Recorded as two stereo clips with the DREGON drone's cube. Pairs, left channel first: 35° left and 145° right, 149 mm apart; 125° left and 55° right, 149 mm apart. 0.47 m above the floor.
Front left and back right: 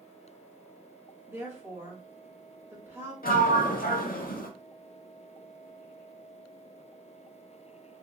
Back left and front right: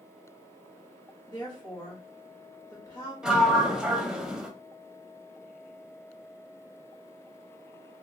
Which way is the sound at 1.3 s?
155° left.